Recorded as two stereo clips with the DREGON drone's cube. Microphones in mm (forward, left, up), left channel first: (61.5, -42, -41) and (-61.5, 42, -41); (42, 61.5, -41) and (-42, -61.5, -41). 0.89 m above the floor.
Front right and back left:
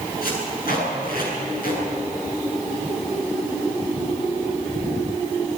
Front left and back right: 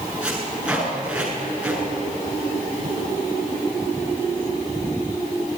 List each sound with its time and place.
0.2 s tape being pulled: 40° right, 7.5 m